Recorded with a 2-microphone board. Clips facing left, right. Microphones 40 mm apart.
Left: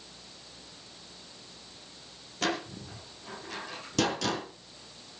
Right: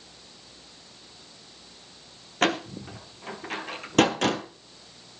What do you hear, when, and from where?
2.4 s a door slam: 55° right (ahead or behind), 1.8 m